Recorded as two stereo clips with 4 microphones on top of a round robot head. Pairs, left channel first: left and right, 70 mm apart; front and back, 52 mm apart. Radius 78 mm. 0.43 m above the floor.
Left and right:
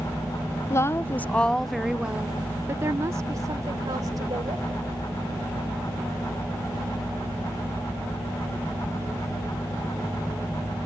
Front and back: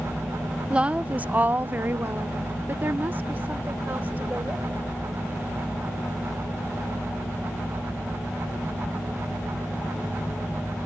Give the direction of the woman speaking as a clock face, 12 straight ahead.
8 o'clock.